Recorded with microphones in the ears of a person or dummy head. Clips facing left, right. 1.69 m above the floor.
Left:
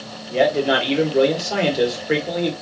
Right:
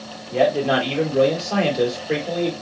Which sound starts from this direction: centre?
A man speaking, at 0.3 s.